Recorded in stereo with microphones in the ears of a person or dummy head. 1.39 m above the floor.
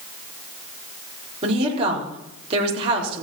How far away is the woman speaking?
About 4 m.